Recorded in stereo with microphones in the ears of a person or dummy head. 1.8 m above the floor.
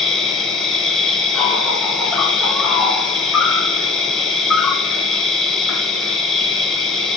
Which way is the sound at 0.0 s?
Centre (ahead or behind).